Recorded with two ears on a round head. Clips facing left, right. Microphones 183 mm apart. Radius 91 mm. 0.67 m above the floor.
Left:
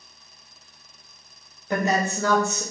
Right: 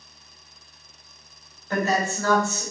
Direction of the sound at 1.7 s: 15° left (ahead or behind).